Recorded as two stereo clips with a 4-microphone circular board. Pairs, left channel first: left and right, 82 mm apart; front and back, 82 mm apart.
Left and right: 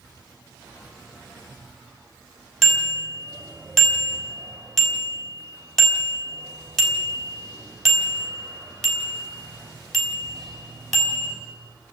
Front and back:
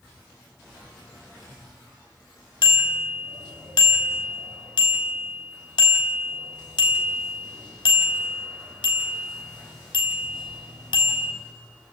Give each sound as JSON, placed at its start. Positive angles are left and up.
{"t": 2.6, "sound": "a bicycle bell", "azimuth_deg": 0, "distance_m": 3.5}